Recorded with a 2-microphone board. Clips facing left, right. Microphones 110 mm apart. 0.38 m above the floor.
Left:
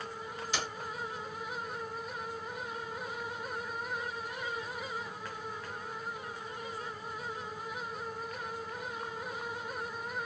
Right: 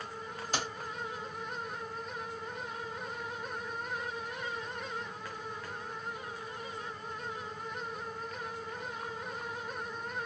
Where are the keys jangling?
45° right (ahead or behind), 1.4 m.